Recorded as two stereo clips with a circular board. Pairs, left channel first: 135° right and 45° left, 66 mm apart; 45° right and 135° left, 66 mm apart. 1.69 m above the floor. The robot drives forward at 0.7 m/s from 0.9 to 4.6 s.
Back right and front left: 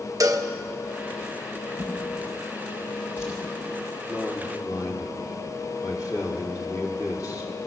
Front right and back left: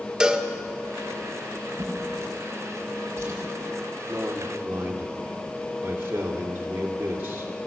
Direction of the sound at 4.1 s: 165° right.